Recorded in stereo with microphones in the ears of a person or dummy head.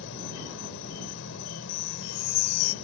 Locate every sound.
0.0 s an insect: 70° left (ahead or behind)
1.7 s a chime: 75° left (ahead or behind)